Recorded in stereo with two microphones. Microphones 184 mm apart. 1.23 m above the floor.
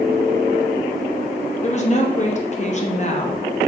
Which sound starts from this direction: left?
A woman speaking, at 1.6 s.